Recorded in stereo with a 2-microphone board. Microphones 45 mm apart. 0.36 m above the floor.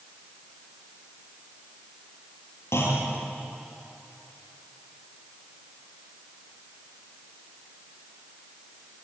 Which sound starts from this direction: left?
A clunk, at 2.7 s.